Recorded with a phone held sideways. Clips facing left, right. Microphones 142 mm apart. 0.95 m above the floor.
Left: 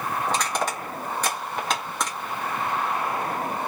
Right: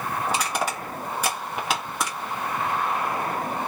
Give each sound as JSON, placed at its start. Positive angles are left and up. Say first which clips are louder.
{"t": 0.3, "sound": "crushing", "louder": "even", "side_deg": -10, "distance_m": 1.3}